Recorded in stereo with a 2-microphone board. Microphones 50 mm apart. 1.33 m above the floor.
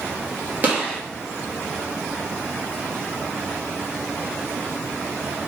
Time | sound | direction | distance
0.6 | a gunshot | 35° right (ahead or behind) | 1.5 m